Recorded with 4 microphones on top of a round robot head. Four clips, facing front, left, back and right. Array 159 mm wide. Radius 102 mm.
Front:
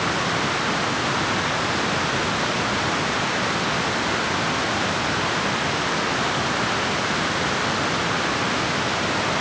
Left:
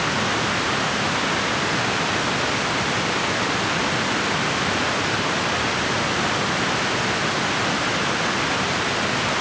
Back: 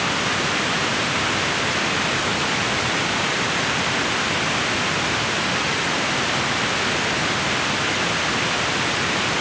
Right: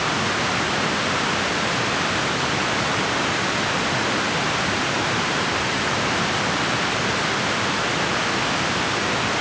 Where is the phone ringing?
No phone ringing in this recording.